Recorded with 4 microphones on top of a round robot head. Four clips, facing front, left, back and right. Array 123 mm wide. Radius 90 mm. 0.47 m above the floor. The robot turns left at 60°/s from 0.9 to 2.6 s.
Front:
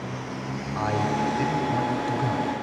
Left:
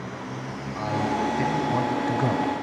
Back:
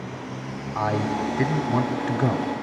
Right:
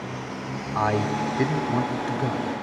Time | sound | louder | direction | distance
0.8 | a man speaking | right 2 dB, back 1 dB | 110° right | 1.9 m